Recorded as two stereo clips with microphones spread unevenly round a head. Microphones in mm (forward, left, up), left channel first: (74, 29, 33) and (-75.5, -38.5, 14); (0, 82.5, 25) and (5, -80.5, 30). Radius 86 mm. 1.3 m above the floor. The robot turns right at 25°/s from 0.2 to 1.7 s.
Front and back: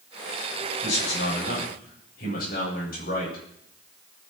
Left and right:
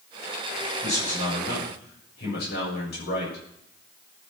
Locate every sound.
0.8 s a man speaking: 40° left, 7 m; by 3.4 s 65° left, 7 m